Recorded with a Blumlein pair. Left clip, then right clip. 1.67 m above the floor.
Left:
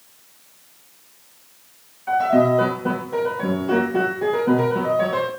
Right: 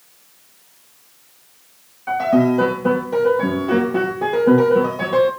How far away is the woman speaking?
I don't hear a woman speaking.